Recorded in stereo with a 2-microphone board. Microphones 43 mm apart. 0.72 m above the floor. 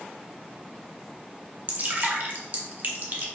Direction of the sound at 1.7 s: 45° right (ahead or behind).